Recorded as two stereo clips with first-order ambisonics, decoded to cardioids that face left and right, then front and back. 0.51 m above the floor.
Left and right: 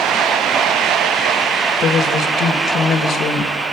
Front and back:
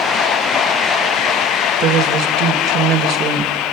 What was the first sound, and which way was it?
A woman speaking, 140° left.